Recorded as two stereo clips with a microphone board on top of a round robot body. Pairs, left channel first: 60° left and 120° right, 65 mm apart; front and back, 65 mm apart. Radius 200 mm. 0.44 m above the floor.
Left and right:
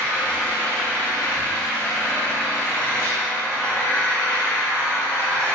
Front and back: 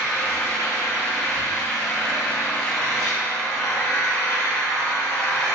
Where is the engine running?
Straight ahead, 1.2 m.